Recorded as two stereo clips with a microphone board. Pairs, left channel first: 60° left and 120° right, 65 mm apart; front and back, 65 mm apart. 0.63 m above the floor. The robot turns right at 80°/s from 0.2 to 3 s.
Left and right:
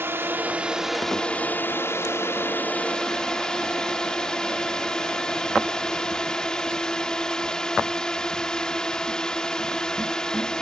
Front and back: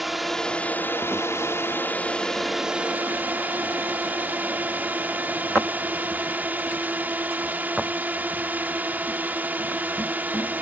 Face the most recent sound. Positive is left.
turn(degrees=130)